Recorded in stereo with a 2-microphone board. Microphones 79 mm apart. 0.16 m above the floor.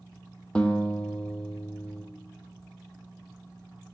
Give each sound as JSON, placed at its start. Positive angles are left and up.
{"t": 0.6, "sound": "a guitar", "side_deg": 15, "distance_m": 1.2}